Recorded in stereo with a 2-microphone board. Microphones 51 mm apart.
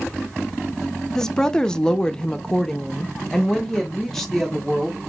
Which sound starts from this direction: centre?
A woman speaking, at 1.1 s.